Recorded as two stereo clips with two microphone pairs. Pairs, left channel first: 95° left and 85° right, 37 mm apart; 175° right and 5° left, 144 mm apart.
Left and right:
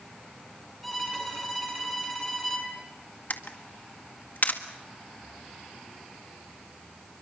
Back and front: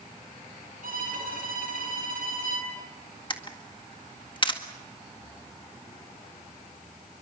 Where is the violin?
10° left, 7 m.